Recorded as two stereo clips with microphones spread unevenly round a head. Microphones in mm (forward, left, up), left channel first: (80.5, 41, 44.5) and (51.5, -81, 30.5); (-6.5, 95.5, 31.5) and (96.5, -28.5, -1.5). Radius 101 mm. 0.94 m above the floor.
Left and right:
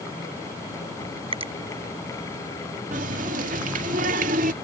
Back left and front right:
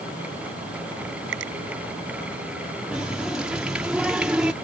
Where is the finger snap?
60° right.